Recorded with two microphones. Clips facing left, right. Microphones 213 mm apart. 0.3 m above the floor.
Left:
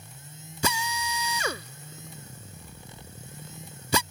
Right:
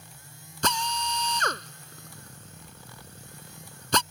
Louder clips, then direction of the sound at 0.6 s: Even; 10° left (ahead or behind).